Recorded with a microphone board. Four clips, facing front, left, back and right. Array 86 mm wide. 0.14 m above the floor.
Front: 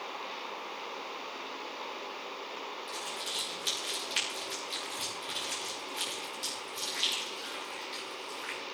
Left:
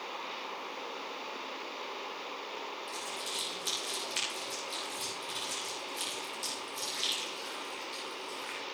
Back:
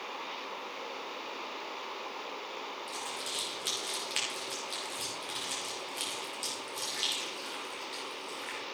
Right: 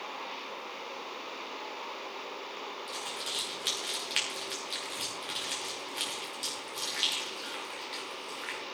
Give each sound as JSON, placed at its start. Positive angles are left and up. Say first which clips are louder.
{"t": 2.9, "sound": "crumpling", "louder": "right 1 dB, even", "azimuth_deg": -100, "distance_m": 6.0}